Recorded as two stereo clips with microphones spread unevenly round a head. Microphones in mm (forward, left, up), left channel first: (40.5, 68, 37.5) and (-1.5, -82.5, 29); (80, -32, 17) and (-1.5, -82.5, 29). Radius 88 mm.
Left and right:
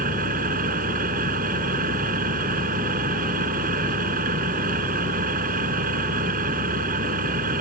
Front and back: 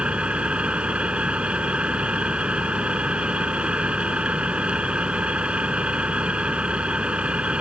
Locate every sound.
0.0 s an engine running: 70° right